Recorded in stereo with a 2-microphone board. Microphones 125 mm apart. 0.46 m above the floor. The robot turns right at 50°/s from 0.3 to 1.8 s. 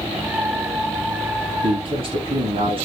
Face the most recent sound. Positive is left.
turn(degrees=-45)  # may be behind; listen again after turning